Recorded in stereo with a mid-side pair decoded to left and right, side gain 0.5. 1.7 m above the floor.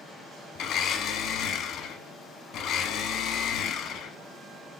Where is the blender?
70° left, 1.0 m.